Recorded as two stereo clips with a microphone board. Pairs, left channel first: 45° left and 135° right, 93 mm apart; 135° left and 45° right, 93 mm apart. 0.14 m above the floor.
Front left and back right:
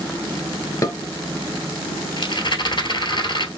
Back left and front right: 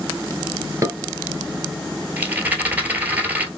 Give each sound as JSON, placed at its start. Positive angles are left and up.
{"t": 0.8, "sound": "dishes clattering", "azimuth_deg": 5, "distance_m": 1.3}
{"t": 2.2, "sound": "a rattle", "azimuth_deg": 25, "distance_m": 1.1}